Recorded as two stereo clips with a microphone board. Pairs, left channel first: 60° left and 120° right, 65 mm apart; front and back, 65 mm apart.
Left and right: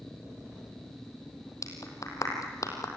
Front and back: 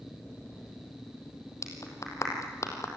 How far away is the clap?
About 3.5 m.